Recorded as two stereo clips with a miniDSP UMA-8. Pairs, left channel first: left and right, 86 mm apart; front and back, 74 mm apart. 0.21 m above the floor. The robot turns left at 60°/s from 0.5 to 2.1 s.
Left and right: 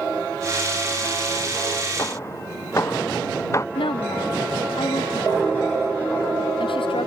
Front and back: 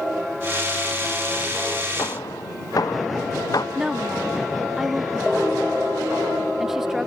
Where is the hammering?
40° left; by 3.6 s 35° left.